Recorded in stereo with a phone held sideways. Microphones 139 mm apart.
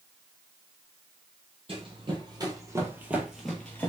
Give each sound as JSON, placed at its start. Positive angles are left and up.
{"t": 1.7, "sound": "running footsteps", "side_deg": -40, "distance_m": 2.0}